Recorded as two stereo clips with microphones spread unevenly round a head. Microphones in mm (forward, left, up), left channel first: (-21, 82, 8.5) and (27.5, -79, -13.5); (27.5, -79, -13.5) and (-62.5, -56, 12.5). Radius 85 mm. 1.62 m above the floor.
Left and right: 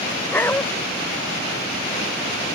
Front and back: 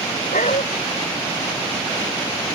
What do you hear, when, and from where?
0.3 s a dog barking: 30° left